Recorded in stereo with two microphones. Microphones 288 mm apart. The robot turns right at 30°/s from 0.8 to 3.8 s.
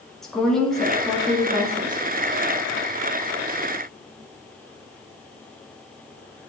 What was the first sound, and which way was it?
A woman speaking, straight behind.